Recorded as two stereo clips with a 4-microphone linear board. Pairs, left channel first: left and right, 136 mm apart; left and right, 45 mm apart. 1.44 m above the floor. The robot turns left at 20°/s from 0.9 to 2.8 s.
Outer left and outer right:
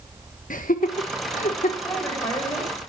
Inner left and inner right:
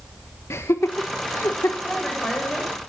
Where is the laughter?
85° left, 1.3 m; by 1.7 s 70° left (ahead or behind), 1.3 m.